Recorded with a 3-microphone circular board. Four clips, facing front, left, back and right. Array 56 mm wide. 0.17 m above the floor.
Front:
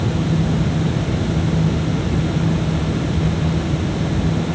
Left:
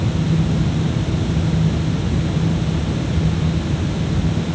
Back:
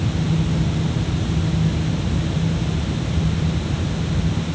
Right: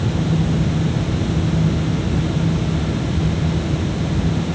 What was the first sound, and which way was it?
Only background noise.